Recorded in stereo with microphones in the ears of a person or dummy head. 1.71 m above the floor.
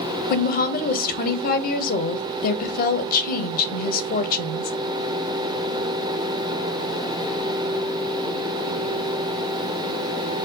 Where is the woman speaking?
45° left (ahead or behind), 0.6 m.